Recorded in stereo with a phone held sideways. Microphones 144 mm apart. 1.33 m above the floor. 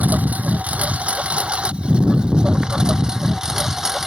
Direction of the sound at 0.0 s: 10° right (ahead or behind).